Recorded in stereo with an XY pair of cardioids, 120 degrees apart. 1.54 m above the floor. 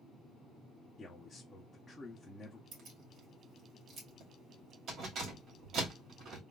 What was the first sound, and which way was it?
A man speaking, 15° left.